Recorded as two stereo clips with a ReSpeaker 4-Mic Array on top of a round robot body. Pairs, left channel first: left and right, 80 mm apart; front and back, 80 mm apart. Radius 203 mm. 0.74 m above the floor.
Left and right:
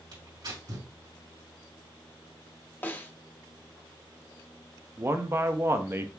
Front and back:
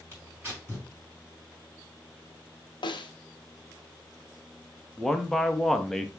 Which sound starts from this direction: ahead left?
A snare drum, at 2.8 s.